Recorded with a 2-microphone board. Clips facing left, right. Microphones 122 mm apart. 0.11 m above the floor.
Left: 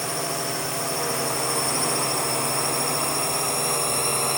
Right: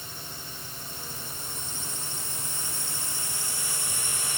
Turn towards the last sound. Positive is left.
turn(degrees=55)  # may be behind; listen again after turning